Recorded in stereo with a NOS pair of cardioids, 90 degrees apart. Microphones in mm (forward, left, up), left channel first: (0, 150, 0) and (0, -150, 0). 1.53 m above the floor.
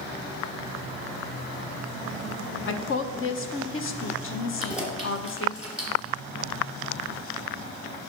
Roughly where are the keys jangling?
Ahead.